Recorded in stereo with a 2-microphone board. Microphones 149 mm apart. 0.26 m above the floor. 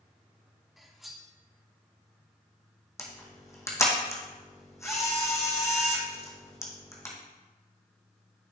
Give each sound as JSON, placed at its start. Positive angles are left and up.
{"t": 0.8, "sound": "cutlery clinking", "side_deg": 0, "distance_m": 1.0}
{"t": 3.0, "sound": "a camera shutter", "side_deg": 20, "distance_m": 1.9}